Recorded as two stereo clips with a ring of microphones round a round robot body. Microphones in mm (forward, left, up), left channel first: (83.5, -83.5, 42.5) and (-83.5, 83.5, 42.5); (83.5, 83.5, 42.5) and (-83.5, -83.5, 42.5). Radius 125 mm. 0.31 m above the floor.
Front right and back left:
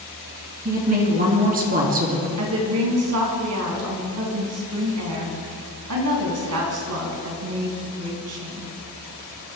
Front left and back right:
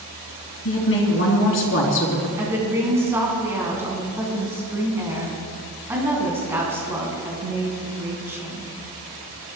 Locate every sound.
0.7 s a woman speaking: 80° left, 3.5 m
2.4 s a woman speaking: 145° left, 4 m